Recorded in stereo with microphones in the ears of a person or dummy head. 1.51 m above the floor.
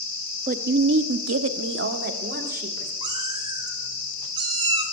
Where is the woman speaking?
40° right (ahead or behind), 0.9 m; by 2.9 s 45° right (ahead or behind), 2.5 m.